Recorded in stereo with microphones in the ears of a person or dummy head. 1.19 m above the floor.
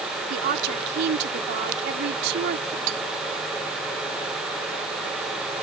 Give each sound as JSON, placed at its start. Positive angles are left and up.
{"t": 0.3, "sound": "a woman speaking", "side_deg": -55}
{"t": 2.9, "sound": "cutlery clinking", "side_deg": -80}